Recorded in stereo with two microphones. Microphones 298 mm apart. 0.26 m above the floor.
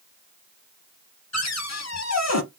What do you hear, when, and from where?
1.3 s a cupboard door: 60° left (ahead or behind), 0.5 m